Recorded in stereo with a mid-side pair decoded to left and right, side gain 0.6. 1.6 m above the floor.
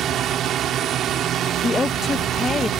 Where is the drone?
50° right.